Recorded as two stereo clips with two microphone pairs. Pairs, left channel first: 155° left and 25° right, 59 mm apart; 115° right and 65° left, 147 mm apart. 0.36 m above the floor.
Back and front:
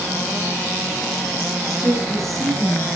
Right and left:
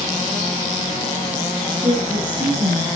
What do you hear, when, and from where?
1.7 s a woman speaking: 5° left, 7.5 m